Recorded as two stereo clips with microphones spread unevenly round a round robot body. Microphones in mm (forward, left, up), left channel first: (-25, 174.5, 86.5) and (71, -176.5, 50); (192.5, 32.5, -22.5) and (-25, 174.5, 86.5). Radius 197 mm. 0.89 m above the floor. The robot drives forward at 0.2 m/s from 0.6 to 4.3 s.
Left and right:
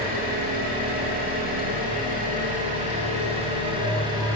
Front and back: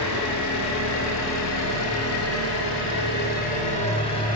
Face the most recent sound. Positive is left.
turn(degrees=-155)